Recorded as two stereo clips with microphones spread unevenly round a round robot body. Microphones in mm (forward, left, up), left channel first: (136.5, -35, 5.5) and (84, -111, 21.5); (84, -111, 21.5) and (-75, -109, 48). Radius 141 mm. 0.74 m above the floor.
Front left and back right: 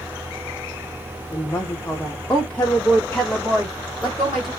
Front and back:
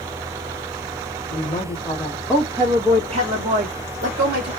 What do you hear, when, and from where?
1.3 s a woman speaking: 15° left, 0.7 m; by 4.5 s 140° left, 1.4 m